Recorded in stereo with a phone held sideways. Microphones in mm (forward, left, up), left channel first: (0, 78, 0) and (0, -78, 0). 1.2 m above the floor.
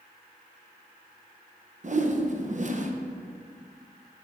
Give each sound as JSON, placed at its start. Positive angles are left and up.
{"t": 1.8, "sound": "a whoosh", "side_deg": -50, "distance_m": 0.6}